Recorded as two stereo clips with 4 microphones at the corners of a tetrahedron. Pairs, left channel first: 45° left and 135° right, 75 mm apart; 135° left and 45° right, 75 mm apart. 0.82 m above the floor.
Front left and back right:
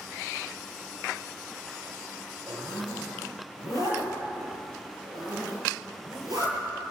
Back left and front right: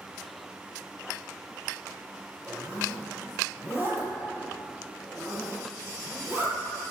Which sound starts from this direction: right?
A zipper, at 2.5 s.